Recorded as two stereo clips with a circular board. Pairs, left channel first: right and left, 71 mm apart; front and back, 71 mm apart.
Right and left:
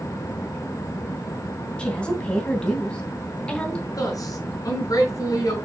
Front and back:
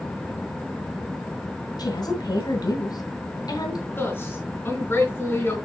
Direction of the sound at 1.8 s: 15° right.